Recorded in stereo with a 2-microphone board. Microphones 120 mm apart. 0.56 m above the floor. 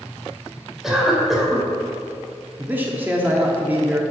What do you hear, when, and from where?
0.8 s a cough: centre (ahead or behind), 2.5 m
2.6 s a man speaking: 15° right (ahead or behind), 1.0 m